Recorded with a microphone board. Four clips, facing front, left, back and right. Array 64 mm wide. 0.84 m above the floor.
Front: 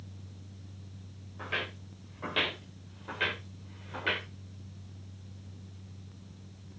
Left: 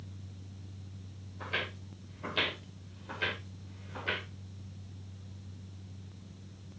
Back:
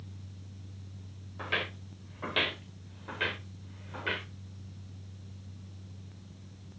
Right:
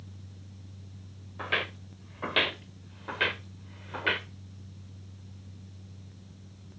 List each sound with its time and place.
1.4 s footsteps: 105° right, 4 m; by 4.3 s 80° right, 4 m